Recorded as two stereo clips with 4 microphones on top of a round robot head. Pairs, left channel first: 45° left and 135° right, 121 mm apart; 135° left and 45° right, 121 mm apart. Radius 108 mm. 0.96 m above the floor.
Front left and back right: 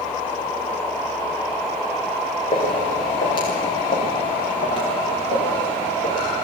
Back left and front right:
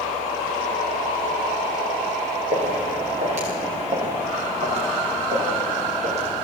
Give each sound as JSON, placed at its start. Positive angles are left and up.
{"t": 2.5, "sound": "footsteps", "azimuth_deg": -10, "distance_m": 5.5}